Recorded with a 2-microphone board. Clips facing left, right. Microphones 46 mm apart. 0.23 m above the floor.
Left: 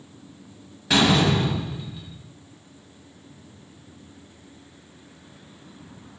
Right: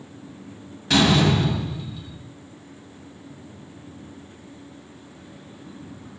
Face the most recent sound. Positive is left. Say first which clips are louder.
# right 1 dB
turn(degrees=10)  # may be behind; listen again after turning